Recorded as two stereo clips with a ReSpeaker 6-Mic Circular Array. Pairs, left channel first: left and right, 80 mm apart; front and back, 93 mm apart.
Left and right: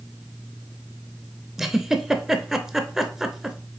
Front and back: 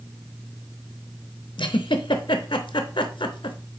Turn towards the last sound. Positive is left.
turn(degrees=-5)